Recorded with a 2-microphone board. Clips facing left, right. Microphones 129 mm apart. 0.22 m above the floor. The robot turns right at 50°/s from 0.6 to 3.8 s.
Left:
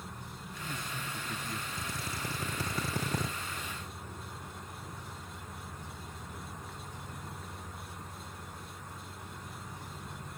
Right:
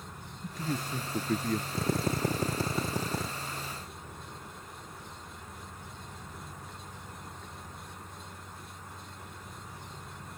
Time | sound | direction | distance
0.4 | a man speaking | 115° right | ?
1.8 | a drill | 75° right | ?